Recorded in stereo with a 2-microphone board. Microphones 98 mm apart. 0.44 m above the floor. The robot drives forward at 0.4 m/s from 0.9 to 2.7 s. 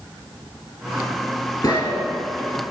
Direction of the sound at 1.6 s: 45° left (ahead or behind).